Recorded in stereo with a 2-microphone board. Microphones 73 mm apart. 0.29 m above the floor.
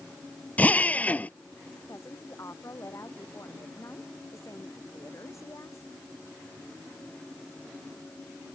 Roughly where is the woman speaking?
Left.